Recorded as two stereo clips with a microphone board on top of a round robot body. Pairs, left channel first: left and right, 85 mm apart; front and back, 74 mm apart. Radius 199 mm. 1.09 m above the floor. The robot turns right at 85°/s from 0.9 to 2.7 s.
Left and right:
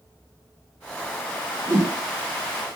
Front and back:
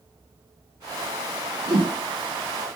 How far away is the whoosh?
About 1.3 m.